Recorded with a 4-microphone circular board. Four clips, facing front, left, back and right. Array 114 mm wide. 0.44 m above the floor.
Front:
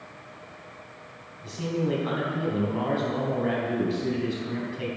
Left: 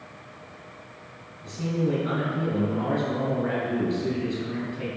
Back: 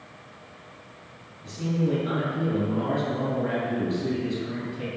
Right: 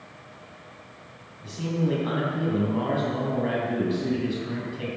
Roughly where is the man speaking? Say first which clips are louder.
Even, back 1 dB; ahead right.